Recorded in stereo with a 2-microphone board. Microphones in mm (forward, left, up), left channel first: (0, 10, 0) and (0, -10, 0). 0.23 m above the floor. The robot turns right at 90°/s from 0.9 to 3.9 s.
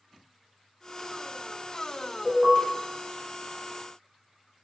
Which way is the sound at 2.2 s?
175° left.